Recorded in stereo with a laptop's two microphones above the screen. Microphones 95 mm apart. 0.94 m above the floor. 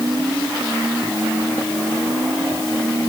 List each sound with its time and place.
Only background noise.